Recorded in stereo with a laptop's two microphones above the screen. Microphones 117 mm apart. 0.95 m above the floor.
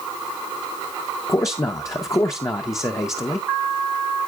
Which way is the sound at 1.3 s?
25° left (ahead or behind).